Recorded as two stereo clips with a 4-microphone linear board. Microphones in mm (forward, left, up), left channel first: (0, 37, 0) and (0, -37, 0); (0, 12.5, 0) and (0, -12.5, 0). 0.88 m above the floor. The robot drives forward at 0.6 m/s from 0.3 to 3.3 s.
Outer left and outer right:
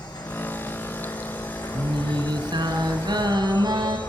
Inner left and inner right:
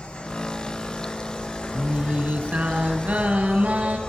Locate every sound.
0.0 s an insect: 65° left (ahead or behind), 5.5 m; by 4.1 s 80° left, 5 m
1.7 s singing: 80° right, 3.5 m; by 4.0 s 65° right (ahead or behind), 3.5 m